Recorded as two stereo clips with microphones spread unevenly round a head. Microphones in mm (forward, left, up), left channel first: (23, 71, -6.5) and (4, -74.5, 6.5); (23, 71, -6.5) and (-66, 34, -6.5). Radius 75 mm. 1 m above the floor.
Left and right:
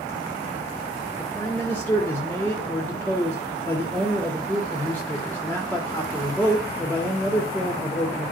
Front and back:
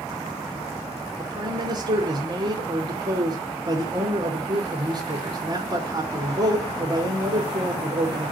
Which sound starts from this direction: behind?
A man speaking, at 1.2 s.